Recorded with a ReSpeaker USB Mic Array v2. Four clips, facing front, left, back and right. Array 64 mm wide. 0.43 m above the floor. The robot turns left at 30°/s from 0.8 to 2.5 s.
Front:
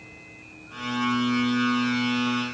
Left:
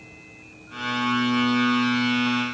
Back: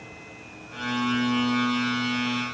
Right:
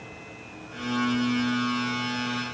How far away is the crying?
No crying in this recording.